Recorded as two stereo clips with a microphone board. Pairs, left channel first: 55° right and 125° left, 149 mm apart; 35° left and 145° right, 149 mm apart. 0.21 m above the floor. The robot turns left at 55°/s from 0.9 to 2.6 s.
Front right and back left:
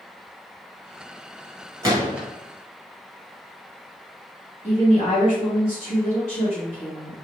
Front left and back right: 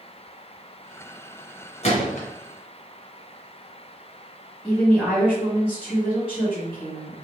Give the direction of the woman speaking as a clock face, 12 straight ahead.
2 o'clock.